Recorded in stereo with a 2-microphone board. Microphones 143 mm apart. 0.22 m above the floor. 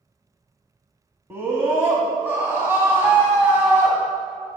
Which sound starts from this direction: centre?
A scream, at 1.3 s.